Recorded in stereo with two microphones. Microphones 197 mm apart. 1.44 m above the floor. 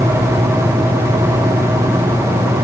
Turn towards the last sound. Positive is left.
No sound to turn to.